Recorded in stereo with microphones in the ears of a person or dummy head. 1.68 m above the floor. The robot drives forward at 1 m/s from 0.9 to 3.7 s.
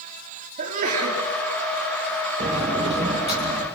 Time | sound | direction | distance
0.6 | a sneeze | 50° right (ahead or behind) | 3.5 m
2.4 | a sliding door | 40° right (ahead or behind) | 2.5 m